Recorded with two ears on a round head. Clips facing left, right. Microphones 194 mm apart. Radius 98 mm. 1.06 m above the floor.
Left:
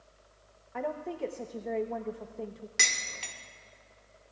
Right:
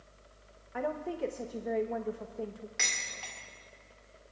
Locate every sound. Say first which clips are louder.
0.7 s a woman speaking: even; 5° right (ahead or behind), 0.8 m
2.8 s dishes clattering: left 2 dB; 45° left (ahead or behind), 2.0 m